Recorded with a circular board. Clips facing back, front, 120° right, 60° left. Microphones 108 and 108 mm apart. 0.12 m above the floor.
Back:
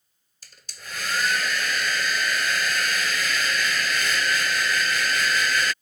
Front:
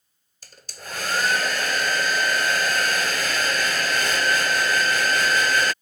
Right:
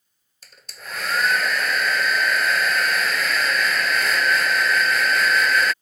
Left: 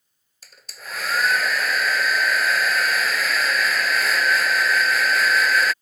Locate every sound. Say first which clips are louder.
0.4 s a hair dryer: front 4 dB, even; 30° right